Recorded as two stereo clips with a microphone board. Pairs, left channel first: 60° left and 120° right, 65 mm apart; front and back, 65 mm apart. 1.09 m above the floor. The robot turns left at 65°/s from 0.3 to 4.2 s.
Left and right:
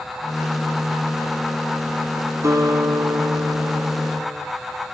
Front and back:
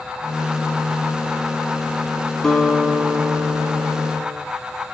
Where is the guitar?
85° right, 8 m; by 4.4 s 165° left, 8 m.